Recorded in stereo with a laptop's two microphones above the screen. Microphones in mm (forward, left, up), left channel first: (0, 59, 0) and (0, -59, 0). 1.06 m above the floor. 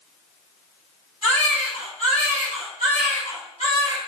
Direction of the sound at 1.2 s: 70° left (ahead or behind).